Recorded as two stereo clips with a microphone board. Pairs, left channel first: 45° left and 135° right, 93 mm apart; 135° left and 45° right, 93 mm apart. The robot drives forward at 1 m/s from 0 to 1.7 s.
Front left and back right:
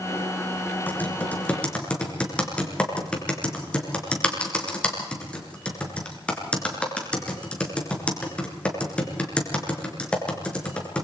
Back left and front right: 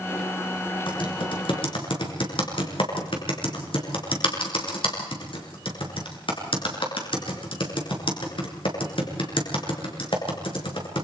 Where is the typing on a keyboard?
110° left, 5 m; by 11.1 s 120° left, 5 m.